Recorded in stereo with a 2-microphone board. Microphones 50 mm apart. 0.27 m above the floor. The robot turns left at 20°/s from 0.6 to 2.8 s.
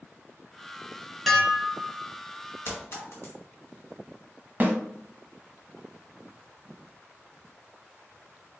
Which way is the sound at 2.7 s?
55° left (ahead or behind).